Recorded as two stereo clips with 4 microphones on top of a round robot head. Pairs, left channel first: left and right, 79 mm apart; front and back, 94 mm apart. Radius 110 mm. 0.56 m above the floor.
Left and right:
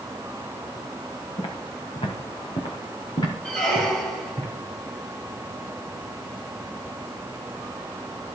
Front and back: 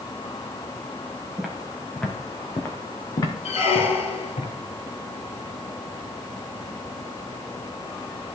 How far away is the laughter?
No laughter in this recording.